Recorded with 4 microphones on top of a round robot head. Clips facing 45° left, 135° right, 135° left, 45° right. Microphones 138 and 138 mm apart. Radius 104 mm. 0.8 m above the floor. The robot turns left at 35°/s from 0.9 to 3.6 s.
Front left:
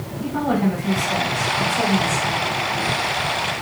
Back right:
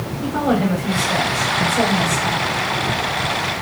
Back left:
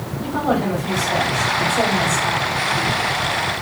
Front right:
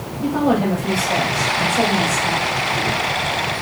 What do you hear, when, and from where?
0.2 s a woman speaking: 125° right, 5 m; by 2.5 s straight behind, 5 m